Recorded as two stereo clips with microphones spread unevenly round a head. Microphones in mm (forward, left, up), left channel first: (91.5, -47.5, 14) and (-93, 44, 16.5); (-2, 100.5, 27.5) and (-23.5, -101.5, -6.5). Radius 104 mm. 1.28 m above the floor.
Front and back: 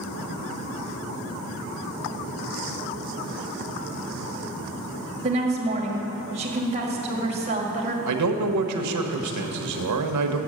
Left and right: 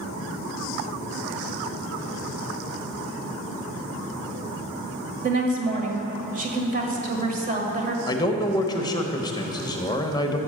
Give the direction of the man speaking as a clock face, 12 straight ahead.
7 o'clock.